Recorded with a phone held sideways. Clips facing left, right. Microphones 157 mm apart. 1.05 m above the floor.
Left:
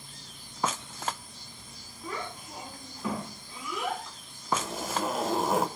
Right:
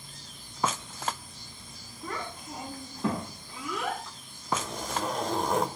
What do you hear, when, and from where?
2.0 s a child speaking: 85° right, 5.5 m; by 4.0 s 80° right, 6 m
4.5 s a zipper: 5° left (ahead or behind), 1.0 m